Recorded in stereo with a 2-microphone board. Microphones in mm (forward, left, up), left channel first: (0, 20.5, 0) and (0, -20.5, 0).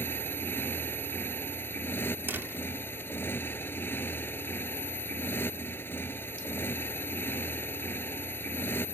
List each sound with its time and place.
0.0 s a motorcycle: 55° left (ahead or behind)
2.3 s a door slam: 60° right (ahead or behind)